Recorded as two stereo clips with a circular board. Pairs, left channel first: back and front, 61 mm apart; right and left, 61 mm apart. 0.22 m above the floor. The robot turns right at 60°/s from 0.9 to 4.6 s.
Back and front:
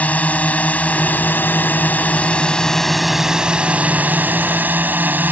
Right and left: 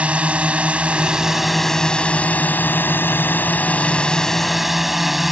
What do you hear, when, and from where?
0.0 s a drone: 145° left; by 5.3 s 5° left